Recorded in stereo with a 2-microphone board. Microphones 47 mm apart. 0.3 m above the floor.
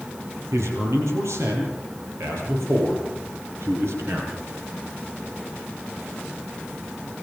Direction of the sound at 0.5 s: 80° right.